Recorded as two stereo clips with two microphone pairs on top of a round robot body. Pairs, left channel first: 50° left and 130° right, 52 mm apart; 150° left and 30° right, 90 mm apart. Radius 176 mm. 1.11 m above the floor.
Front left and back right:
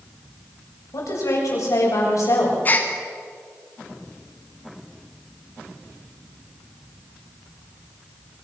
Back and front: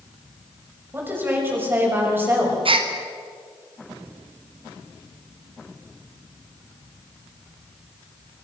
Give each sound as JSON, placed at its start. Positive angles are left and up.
{"t": 0.9, "sound": "a woman speaking", "azimuth_deg": 40, "distance_m": 6.5}
{"t": 2.6, "sound": "a gasp", "azimuth_deg": -5, "distance_m": 1.8}